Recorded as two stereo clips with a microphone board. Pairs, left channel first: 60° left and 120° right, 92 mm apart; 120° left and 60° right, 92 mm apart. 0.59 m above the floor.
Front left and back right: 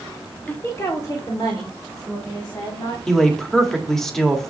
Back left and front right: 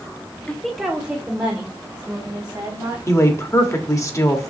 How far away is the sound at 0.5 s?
About 0.9 m.